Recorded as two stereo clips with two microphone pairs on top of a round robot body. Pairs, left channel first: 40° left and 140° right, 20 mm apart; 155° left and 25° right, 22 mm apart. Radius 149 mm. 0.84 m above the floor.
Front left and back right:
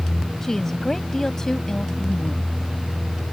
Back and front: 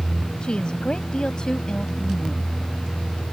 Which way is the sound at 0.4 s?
110° left.